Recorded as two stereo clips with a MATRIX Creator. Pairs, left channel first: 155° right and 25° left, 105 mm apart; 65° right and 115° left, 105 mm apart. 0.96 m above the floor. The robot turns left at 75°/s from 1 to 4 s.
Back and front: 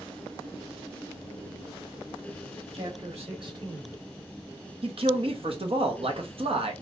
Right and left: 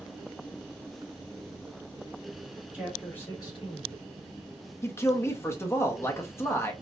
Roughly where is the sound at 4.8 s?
Ahead.